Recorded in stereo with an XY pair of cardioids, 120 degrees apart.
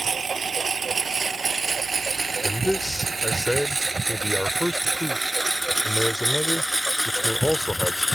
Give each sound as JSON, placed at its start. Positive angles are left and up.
{"t": 0.0, "sound": "a lawn mower", "azimuth_deg": -30}
{"t": 2.4, "sound": "a man speaking", "azimuth_deg": 5}